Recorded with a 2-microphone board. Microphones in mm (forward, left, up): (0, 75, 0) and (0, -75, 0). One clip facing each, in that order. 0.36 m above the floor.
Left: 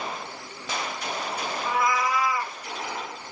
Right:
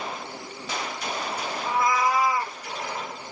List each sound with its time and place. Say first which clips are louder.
1.6 s a cat meowing: right 2 dB; 30° right (ahead or behind), 0.7 m